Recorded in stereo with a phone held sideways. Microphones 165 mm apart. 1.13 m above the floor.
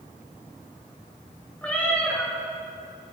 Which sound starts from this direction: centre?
A cat meowing, at 1.6 s.